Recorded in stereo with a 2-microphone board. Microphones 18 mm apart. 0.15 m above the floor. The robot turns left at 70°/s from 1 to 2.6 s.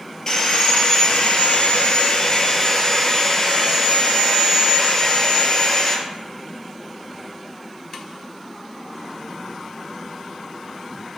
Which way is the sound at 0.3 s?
145° left.